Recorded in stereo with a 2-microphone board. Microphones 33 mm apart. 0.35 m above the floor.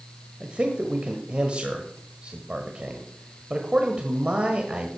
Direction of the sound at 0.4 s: 35° right (ahead or behind).